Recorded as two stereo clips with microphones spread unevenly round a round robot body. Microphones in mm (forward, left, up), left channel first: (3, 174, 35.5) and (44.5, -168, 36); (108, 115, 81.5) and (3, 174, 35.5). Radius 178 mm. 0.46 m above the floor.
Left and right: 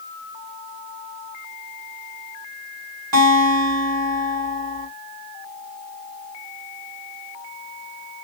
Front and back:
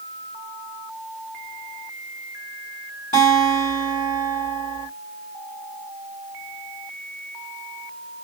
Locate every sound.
3.1 s a guitar: 75° right, 2 m